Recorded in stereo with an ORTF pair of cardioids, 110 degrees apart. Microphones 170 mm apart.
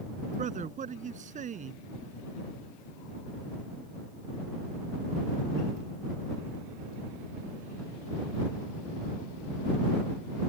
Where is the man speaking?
45° right.